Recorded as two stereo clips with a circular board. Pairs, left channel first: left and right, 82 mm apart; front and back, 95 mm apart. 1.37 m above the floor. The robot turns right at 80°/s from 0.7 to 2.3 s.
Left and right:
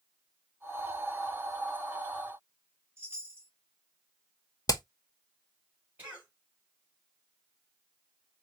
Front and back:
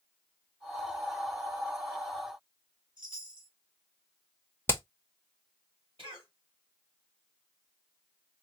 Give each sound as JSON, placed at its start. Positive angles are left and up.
{"t": 3.0, "sound": "a chime", "azimuth_deg": -150, "distance_m": 1.7}
{"t": 4.7, "sound": "hammering", "azimuth_deg": 60, "distance_m": 0.8}
{"t": 6.0, "sound": "a cough", "azimuth_deg": -160, "distance_m": 3.0}